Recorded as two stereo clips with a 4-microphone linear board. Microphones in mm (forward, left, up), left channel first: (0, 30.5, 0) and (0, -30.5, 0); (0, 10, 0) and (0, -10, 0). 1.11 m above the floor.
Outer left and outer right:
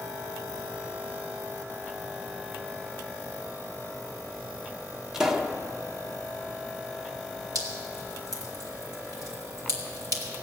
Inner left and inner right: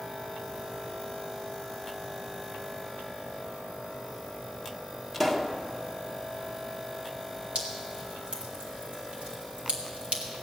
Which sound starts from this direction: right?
Dripping, at 7.5 s.